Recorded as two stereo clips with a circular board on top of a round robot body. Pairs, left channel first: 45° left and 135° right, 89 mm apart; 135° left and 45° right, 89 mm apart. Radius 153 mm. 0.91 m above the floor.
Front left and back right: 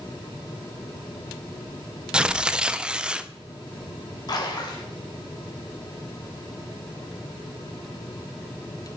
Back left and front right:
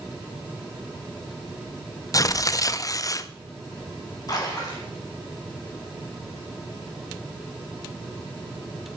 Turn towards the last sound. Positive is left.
turn(degrees=85)